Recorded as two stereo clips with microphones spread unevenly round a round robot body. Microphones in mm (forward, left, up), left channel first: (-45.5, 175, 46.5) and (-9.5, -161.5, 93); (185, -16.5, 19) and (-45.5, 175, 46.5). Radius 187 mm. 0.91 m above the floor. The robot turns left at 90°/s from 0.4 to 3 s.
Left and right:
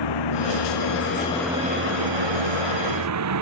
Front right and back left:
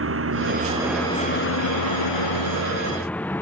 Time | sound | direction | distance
0.0 | a vehicle | 95° left | ?